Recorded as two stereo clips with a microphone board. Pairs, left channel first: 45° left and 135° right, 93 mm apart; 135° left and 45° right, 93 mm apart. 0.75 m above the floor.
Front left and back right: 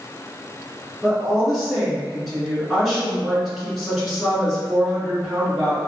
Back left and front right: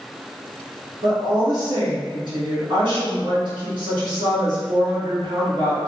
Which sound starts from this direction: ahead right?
A woman speaking, at 1.0 s.